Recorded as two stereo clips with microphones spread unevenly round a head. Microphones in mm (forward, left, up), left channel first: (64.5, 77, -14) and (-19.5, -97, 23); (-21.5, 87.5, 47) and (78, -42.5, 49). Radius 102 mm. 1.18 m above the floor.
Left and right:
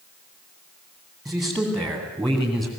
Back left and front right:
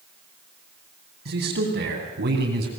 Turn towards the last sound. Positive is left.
turn(degrees=-25)